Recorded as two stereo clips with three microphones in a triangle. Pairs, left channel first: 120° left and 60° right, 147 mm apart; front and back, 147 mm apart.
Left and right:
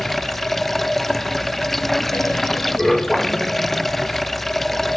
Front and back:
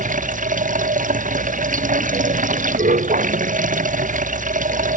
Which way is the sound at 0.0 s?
150° right.